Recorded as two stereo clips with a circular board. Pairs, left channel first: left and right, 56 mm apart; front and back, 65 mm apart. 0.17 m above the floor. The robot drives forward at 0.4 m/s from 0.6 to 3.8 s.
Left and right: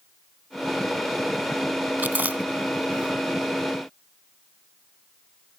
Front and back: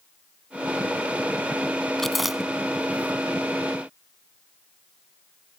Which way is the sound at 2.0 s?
80° right.